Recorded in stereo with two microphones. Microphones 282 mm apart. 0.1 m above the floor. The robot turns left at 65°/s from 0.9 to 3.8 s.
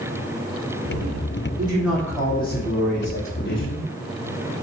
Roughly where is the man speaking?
Behind right.